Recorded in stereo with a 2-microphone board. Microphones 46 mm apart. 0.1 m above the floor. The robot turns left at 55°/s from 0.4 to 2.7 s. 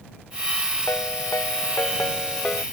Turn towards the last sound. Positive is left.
turn(degrees=15)